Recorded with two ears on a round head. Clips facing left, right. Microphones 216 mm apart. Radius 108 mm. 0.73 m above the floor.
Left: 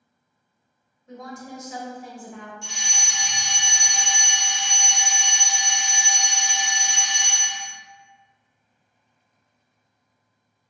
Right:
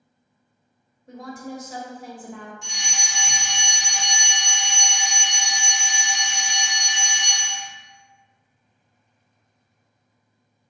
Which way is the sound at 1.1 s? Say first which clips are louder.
Right 3 dB; 30° right (ahead or behind).